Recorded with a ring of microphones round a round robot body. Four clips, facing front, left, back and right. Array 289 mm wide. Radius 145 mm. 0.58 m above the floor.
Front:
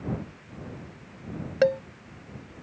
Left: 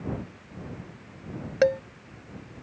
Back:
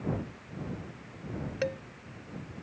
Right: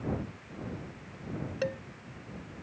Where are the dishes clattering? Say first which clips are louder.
Left 13 dB, front 11 dB; 50° left.